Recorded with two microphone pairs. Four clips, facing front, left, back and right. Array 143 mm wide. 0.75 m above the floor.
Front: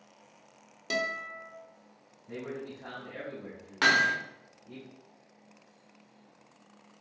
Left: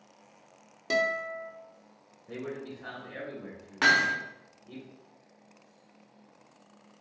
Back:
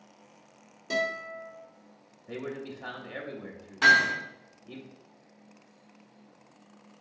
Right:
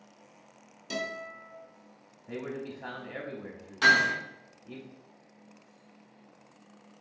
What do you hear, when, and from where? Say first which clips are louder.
0.9 s a guitar: left 8 dB, back 3 dB; 70° left, 0.7 m
2.3 s a man speaking: right 1 dB, back 2 dB; 140° right, 0.7 m
3.8 s hammering: right 1 dB, back 3 dB; 35° left, 1.0 m